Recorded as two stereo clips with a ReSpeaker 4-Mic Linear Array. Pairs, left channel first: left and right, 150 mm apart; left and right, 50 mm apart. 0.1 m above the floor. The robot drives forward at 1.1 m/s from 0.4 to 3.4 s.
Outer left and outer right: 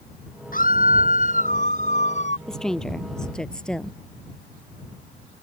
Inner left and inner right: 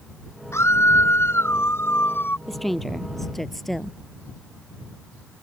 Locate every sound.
0.5 s a scream: 65° left (ahead or behind); by 2.4 s 50° left (ahead or behind)
2.5 s a woman speaking: 5° left (ahead or behind)